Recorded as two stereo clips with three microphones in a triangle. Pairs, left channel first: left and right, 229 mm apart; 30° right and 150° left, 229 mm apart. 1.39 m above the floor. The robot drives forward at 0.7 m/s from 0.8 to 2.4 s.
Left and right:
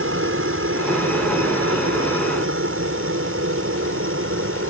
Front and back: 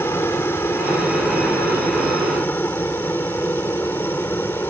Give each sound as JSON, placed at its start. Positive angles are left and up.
{"t": 0.0, "sound": "a helicopter", "azimuth_deg": -110}